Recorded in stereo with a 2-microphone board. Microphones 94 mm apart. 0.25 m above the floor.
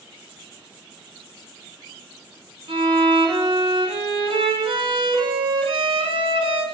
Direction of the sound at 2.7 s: 80° right.